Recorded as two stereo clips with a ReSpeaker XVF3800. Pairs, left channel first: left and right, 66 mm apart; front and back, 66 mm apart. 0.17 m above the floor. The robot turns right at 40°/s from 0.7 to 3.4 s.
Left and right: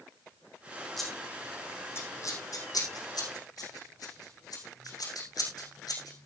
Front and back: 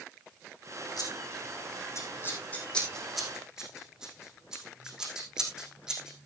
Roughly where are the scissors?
Ahead.